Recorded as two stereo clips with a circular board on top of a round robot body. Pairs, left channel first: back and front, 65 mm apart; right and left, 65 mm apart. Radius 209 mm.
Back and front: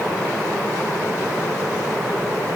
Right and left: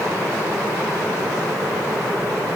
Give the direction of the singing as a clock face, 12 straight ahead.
No singing in this recording.